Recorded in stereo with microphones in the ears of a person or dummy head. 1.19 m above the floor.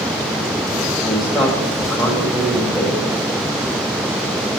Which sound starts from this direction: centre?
A man speaking, at 1.0 s.